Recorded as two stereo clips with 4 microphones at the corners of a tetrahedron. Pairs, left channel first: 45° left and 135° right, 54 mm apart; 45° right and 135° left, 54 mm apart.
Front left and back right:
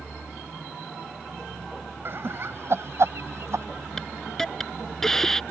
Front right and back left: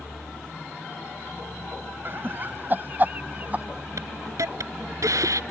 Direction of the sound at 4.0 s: 125° left.